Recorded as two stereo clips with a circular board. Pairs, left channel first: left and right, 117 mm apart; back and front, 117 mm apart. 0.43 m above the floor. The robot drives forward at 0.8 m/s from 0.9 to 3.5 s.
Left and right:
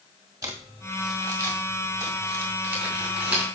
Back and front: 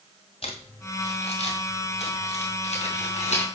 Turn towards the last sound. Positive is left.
turn(degrees=-165)